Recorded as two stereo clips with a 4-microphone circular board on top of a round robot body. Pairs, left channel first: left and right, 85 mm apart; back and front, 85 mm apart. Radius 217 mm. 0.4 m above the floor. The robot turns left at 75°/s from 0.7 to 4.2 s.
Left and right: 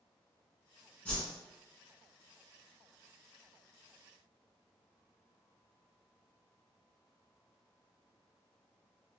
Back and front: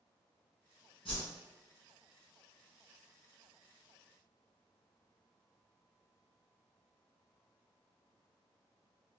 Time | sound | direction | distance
1.1 | a whoosh | 165° left | 1.0 m